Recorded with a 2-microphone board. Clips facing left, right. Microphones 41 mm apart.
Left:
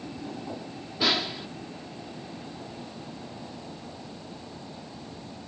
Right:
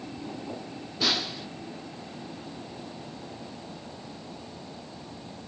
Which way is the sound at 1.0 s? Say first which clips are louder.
Left 2 dB; 15° left (ahead or behind).